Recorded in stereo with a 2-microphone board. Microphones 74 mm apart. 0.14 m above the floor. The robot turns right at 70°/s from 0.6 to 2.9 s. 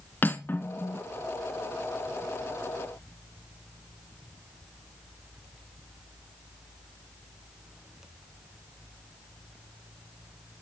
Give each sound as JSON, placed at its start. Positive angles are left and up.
{"t": 0.2, "sound": "cutlery clinking", "side_deg": 25, "distance_m": 1.1}